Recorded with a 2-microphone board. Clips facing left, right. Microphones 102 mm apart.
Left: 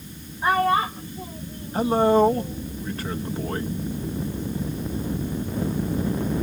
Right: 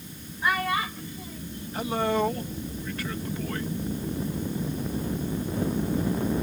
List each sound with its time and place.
0.4 s a child speaking: 35° left (ahead or behind)
1.7 s a man speaking: 35° left (ahead or behind)